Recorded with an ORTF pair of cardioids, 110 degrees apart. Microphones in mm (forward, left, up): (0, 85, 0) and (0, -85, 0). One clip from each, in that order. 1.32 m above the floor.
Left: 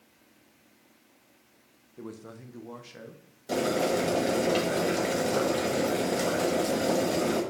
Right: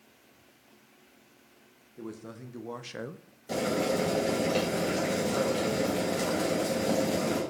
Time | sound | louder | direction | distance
2.0 | a man speaking | right 1 dB | straight ahead | 1.1 m
3.5 | boiling | left 2 dB | 20° left | 2.5 m